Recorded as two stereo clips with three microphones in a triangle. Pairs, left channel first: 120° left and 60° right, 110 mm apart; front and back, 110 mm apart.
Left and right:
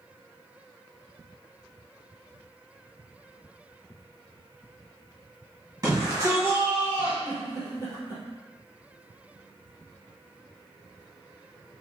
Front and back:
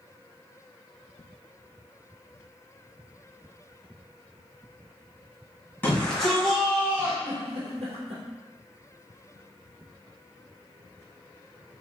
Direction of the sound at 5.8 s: 60° right.